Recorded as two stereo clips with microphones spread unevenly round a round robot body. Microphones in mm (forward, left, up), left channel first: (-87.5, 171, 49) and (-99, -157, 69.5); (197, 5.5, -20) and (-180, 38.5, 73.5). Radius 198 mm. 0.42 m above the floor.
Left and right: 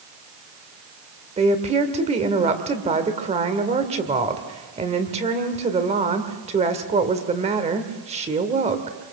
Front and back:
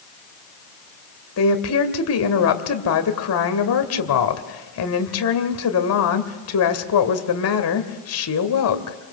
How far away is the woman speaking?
About 1.8 m.